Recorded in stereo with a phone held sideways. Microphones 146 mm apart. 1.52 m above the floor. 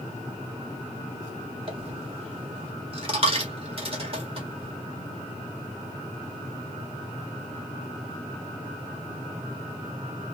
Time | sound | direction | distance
1.7 | a dropped coin | 40° right (ahead or behind) | 1.7 m